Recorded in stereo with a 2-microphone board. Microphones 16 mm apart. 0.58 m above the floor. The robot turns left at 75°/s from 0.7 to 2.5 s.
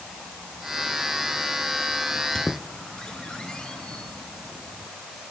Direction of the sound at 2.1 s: 45° left (ahead or behind).